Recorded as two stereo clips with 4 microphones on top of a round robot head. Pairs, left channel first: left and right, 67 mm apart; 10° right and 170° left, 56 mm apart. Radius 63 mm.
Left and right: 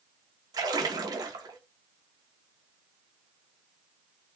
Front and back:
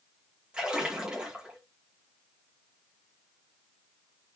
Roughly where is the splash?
Behind right.